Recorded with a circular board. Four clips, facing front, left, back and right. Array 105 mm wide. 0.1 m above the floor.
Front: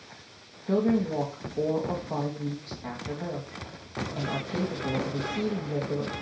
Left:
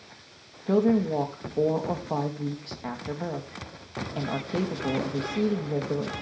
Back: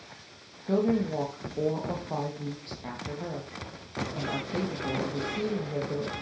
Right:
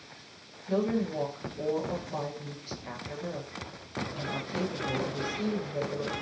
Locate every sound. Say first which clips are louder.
0.7 s a woman speaking: left 6 dB, front 1 dB; 90° left, 3.5 m